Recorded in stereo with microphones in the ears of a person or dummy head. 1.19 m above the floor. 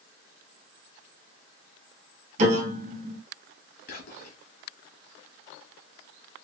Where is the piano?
50° right (ahead or behind), 1.9 m.